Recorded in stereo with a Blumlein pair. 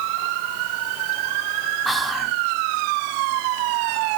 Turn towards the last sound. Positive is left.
turn(degrees=0)